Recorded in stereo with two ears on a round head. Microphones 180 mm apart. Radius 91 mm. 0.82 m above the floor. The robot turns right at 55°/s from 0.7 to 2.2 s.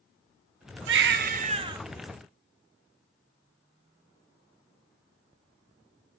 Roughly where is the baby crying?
Right.